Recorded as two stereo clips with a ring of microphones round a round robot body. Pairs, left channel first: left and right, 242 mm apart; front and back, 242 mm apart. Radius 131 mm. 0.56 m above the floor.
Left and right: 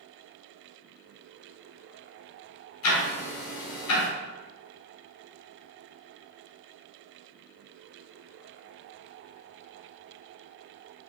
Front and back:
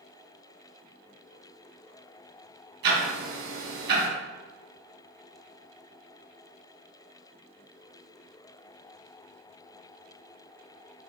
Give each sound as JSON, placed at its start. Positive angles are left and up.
{"t": 2.8, "sound": "ticking", "azimuth_deg": 130, "distance_m": 2.5}